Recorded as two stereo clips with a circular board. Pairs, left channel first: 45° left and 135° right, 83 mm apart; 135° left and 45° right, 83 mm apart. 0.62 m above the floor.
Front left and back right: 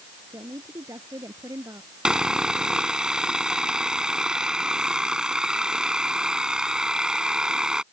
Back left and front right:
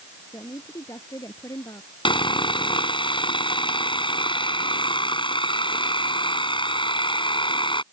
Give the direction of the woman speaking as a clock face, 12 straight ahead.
6 o'clock.